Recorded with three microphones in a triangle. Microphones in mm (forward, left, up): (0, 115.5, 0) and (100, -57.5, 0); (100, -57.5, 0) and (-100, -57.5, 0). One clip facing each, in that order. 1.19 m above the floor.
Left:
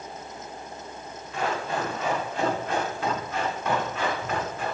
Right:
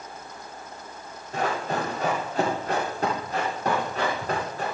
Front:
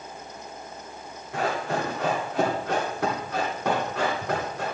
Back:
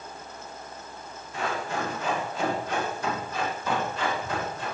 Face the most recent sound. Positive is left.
turn(degrees=-10)